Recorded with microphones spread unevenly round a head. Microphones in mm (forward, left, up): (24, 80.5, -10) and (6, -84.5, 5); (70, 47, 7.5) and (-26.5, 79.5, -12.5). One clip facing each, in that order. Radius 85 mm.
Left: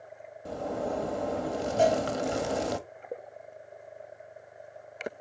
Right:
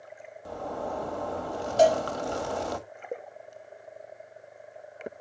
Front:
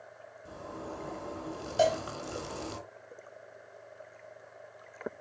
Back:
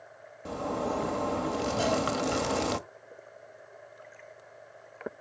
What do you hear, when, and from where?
0.5 s a zipper: 150° left, 1.2 m
1.8 s a cowbell: 55° right, 5.5 m